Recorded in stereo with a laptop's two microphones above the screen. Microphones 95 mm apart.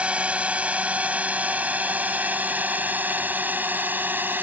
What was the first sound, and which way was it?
A drone, 10° right (ahead or behind).